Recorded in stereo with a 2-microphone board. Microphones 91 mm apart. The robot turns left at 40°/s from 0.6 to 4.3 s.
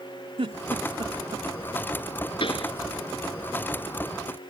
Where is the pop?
70° left (ahead or behind); by 2.7 s 80° left.